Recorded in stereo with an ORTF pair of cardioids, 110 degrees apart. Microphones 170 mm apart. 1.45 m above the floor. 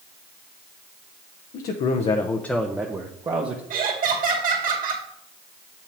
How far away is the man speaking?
About 0.9 m.